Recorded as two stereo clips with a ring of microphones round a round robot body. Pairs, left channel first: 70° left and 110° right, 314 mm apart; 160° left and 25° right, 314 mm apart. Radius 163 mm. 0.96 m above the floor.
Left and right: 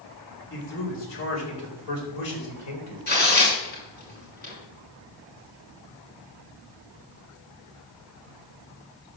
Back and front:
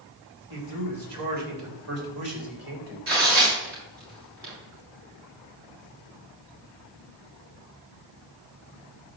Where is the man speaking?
10° left, 3.5 m; by 3.0 s 30° left, 4.5 m.